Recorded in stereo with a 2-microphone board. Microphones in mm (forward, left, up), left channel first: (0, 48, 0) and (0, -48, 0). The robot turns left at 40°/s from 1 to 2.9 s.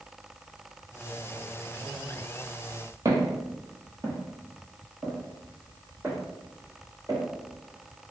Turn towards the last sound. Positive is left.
turn(degrees=-20)  # may be behind; listen again after turning